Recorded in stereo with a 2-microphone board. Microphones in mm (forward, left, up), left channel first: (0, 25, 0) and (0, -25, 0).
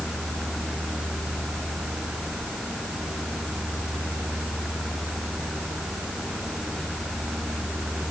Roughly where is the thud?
No thud in this recording.